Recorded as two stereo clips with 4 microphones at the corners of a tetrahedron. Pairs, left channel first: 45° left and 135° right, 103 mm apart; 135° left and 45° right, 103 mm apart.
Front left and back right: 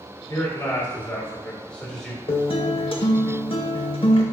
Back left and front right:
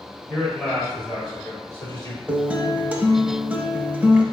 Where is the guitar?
30° left, 0.6 m.